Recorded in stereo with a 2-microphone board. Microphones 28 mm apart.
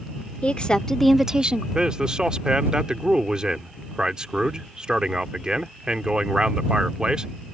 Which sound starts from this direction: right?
A man speaking, at 1.8 s.